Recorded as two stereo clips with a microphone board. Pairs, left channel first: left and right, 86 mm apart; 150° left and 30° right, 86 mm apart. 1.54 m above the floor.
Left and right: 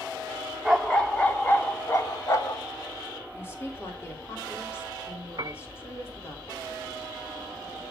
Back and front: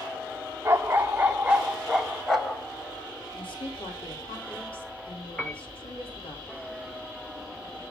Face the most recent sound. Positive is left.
turn(degrees=-130)